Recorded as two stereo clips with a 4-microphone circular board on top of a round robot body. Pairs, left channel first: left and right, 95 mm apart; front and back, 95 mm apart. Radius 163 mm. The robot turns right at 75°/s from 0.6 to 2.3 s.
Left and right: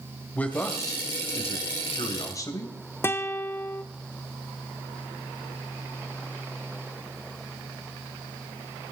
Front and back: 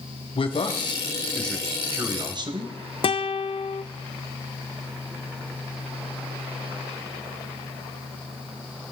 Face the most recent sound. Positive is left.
turn(degrees=25)